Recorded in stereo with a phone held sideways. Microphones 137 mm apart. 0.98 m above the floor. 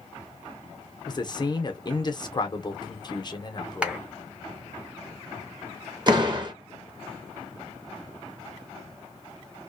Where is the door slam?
35° right (ahead or behind), 0.7 m.